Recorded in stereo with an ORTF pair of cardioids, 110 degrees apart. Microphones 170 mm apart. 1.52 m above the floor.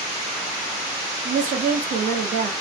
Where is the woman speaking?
55° right, 0.7 m.